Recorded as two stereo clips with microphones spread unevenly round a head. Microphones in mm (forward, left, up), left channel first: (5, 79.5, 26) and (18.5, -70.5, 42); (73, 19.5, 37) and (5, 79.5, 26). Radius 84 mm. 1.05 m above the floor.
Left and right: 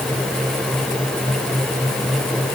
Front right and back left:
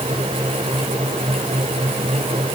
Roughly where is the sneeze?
I don't hear a sneeze.